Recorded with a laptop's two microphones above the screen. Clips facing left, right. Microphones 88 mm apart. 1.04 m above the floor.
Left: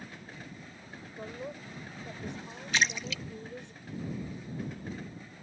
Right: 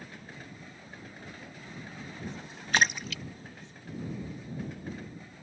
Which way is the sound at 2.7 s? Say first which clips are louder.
Right 3 dB; 50° right (ahead or behind).